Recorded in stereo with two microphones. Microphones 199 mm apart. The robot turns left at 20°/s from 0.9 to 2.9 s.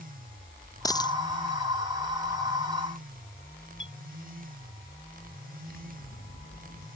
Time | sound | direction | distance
0.8 | a dropped coin | 20° left (ahead or behind) | ?
3.8 | a clink | 75° left (ahead or behind) | ?
5.7 | scissors | 70° left (ahead or behind) | ?